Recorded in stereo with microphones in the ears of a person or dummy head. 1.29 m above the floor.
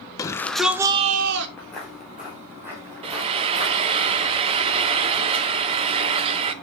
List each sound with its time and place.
0.2 s a shout: 20° left (ahead or behind), 1.3 m; by 1.5 s 60° right (ahead or behind), 1.0 m
1.6 s footsteps: 10° left (ahead or behind), 1.7 m; by 4.0 s 25° right (ahead or behind), 3 m
3.0 s frying: 35° right (ahead or behind), 0.8 m